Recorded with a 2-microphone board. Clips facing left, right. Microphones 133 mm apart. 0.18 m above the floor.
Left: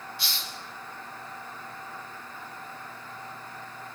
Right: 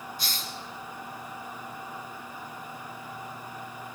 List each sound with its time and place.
0.2 s a hiss: 45° right (ahead or behind), 2.5 m